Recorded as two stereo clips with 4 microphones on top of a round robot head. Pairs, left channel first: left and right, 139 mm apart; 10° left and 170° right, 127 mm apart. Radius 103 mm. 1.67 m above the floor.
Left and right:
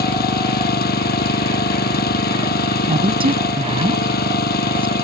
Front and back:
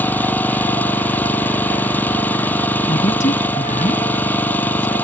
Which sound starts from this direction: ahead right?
A woman speaking, at 2.9 s.